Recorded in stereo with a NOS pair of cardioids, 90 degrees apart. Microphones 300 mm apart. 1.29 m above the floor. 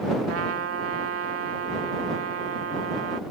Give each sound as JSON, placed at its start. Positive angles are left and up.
{"t": 0.3, "sound": "a trumpet", "azimuth_deg": -50}